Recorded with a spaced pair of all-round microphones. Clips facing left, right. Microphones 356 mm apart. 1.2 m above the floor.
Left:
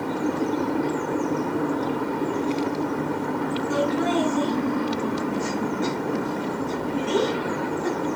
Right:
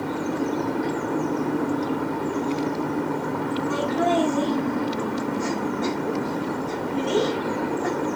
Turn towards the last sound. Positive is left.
turn(degrees=-75)  # may be behind; listen again after turning